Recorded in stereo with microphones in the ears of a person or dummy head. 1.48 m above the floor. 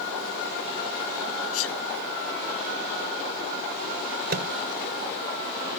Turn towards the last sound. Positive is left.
turn(degrees=-45)  # may be behind; listen again after turning